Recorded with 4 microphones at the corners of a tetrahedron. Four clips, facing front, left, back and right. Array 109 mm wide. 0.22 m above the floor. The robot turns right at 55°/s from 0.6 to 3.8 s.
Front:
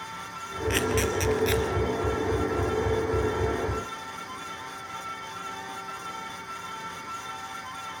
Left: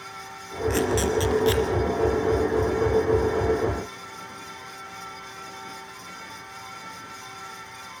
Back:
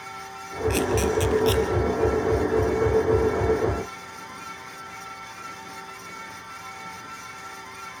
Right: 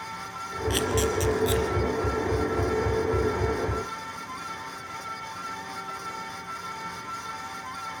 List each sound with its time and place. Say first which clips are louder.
0.7 s a camera shutter: left 3 dB, back 3 dB; 15° right, 2.5 m; by 1.6 s 40° left, 2.5 m